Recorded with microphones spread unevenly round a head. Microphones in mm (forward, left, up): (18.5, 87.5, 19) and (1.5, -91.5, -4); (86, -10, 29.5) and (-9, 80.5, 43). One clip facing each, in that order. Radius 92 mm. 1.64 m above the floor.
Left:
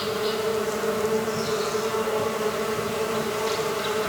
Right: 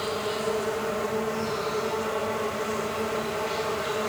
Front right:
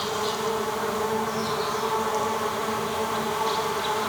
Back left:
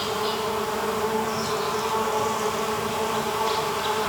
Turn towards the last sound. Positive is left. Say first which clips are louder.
# left 3 dB, back left 1 dB
turn(degrees=50)